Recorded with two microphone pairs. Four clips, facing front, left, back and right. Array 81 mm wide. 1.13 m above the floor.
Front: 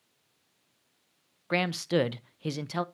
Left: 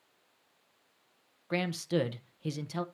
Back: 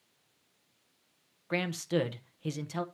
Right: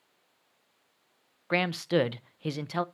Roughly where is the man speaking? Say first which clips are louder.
Right 4 dB, front 4 dB; right.